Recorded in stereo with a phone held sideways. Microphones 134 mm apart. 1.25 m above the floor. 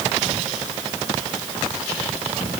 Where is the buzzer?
No buzzer in this recording.